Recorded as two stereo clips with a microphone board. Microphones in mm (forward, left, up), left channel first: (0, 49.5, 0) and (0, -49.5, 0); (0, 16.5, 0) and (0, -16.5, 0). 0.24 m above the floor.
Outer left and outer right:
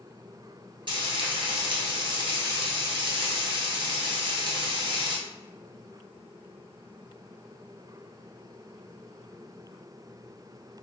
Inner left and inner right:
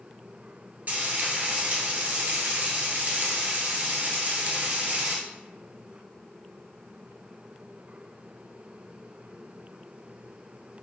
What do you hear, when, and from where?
0.9 s frying: 50° right (ahead or behind), 0.9 m